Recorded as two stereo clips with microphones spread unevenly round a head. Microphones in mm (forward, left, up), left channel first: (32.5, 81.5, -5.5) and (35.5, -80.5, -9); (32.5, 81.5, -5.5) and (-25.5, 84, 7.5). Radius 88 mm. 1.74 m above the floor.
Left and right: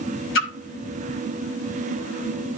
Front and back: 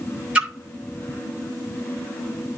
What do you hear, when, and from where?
0.3 s a splash: 105° left, 8 m